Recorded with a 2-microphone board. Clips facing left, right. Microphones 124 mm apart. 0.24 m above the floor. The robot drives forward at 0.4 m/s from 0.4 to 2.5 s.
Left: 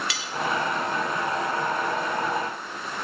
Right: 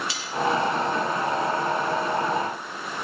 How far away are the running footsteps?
No running footsteps in this recording.